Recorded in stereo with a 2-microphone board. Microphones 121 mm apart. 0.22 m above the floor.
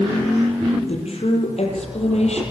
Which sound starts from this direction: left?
A woman speaking, at 0.9 s.